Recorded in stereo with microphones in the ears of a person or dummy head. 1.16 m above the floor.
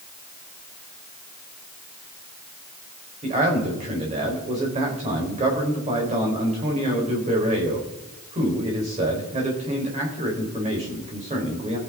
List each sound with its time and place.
3.2 s a man speaking: 25° right (ahead or behind), 4 m